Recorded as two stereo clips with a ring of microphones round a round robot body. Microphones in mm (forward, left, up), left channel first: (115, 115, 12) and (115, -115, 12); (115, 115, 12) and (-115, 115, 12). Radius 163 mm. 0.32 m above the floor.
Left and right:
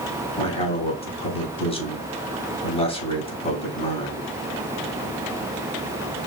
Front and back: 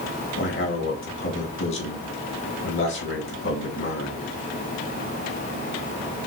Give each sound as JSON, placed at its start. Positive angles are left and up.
{"t": 0.4, "sound": "a man speaking", "azimuth_deg": 25, "distance_m": 2.5}